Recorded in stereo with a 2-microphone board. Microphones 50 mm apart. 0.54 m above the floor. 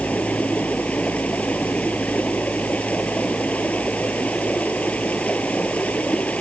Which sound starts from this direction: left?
Running water, at 0.0 s.